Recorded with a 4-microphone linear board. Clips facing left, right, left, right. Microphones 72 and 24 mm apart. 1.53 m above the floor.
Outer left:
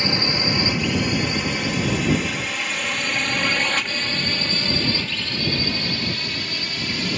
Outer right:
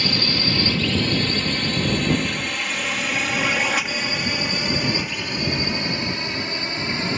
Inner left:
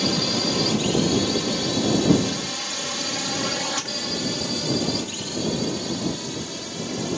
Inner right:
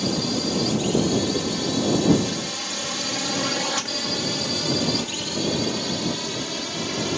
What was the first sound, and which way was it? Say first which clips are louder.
A drone: outer left 1 dB, inner left 2 dB; 20° left (ahead or behind).